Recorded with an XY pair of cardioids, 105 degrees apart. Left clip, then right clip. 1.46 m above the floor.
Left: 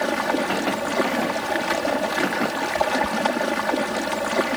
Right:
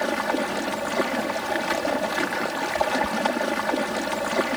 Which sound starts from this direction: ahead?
Running water, at 0.0 s.